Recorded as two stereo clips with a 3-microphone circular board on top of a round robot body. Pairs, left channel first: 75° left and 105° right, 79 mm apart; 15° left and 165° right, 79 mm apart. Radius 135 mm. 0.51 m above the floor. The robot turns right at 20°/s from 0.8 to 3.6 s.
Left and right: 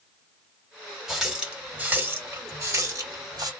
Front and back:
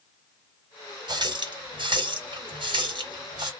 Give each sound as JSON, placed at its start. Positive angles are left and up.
{"t": 1.1, "sound": "a running tap", "azimuth_deg": 170, "distance_m": 1.3}